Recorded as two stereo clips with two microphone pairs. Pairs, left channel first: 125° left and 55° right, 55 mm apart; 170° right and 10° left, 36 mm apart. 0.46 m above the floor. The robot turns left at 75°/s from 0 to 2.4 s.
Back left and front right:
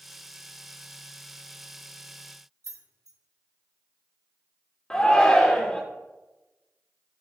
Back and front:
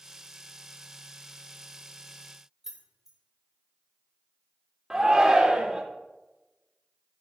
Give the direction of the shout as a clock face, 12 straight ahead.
10 o'clock.